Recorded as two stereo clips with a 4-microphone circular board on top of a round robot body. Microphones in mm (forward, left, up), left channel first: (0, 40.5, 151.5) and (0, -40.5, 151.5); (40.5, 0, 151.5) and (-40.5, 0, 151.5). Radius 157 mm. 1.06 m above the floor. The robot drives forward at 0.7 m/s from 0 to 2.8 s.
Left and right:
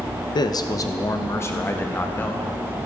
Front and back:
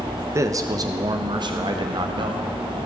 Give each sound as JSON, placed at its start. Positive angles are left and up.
{"t": 0.3, "sound": "a man speaking", "azimuth_deg": 125, "distance_m": 0.9}